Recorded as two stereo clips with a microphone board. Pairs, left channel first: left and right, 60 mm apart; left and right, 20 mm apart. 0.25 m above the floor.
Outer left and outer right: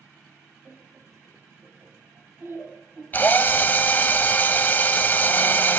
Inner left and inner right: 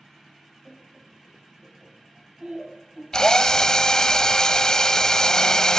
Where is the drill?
30° left (ahead or behind), 0.6 m.